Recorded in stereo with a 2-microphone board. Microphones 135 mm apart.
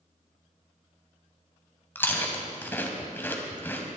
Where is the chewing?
15° left (ahead or behind), 1.9 m.